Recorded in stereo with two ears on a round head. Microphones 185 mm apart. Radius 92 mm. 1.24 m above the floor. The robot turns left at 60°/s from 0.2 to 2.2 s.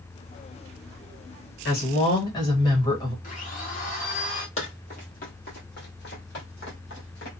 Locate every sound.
1.6 s a woman speaking: 55° left, 1.3 m; by 3.1 s 20° left, 1.3 m
3.2 s a blender: 40° left (ahead or behind), 1.2 m
4.6 s running footsteps: 35° left (ahead or behind), 2.0 m; by 7.3 s 60° left (ahead or behind), 2.5 m